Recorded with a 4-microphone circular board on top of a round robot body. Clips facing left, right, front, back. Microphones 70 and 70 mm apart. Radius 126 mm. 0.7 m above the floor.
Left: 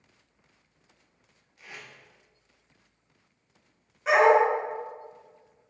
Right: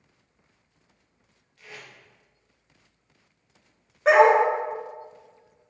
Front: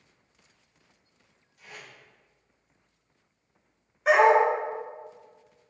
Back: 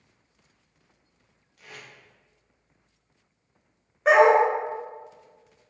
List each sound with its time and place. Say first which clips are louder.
1.6 s tape being pulled: right 1 dB, back 1 dB; 165° left, 1.5 m
4.0 s a dog barking: right 3 dB, back 2 dB; 130° right, 1.1 m